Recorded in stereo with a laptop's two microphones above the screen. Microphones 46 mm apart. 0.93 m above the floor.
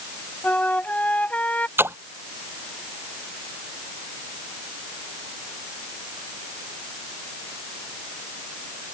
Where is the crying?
No crying in this recording.